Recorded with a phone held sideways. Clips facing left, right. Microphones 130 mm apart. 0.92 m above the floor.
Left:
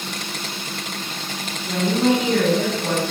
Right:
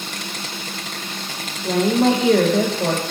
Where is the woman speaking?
80° right, 4.5 m.